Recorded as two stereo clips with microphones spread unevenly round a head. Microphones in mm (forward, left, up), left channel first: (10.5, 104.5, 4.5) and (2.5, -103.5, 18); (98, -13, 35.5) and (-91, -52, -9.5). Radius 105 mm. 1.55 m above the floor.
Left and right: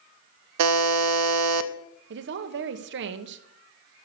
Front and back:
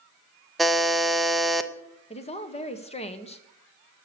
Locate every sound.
0.6 s a buzzer: 75° right, 0.6 m
2.1 s a woman speaking: 50° right, 1.2 m